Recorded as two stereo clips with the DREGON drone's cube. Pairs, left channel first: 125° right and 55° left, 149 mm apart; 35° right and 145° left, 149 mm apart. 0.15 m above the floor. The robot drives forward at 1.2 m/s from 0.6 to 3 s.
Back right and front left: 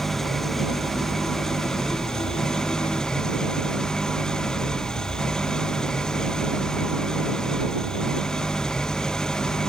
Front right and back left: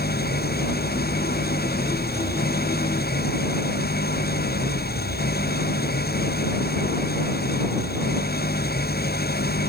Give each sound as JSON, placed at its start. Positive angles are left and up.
{"t": 0.0, "sound": "an engine running", "azimuth_deg": -35}